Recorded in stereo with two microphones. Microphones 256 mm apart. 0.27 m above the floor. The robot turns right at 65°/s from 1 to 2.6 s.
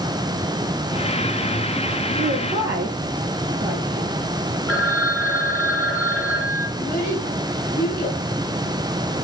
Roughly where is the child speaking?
Left.